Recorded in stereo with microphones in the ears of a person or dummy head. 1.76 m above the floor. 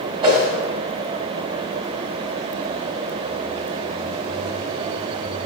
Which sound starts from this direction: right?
A whoosh, at 0.2 s.